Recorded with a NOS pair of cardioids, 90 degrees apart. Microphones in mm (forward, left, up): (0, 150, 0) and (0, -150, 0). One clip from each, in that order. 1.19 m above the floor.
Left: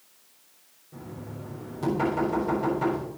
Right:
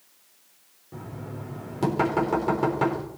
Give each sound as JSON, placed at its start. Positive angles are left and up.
{"t": 0.9, "sound": "knocking", "azimuth_deg": -60, "distance_m": 4.0}